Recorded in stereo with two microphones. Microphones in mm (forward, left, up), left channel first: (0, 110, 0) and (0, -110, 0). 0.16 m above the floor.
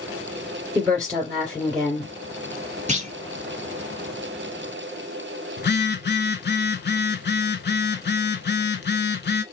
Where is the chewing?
No chewing in this recording.